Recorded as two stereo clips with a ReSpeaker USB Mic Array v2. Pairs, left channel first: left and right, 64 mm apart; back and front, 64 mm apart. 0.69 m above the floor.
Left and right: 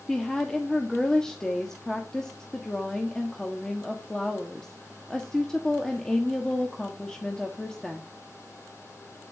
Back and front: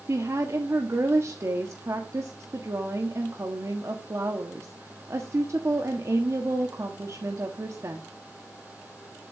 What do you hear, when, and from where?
0.1 s a woman speaking: 10° left, 1.3 m